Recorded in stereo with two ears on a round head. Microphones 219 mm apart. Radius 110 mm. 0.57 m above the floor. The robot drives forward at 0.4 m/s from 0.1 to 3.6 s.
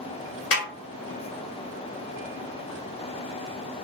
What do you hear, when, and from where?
0.5 s a snare drum: 55° left (ahead or behind), 1.8 m